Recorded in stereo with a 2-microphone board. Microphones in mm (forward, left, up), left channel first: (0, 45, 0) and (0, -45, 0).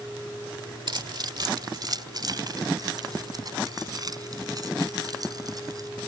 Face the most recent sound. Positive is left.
turn(degrees=-40)  # may be behind; listen again after turning